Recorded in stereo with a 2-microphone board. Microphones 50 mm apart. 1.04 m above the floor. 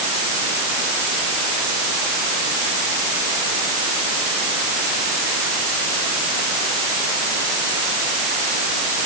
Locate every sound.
Only background noise.